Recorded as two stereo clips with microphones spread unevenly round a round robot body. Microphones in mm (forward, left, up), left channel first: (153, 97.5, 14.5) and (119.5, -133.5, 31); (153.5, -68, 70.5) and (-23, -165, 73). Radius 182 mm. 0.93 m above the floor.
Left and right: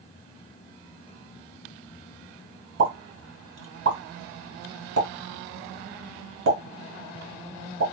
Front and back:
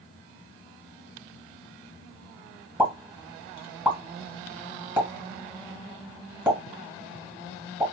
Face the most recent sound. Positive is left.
turn(degrees=-70)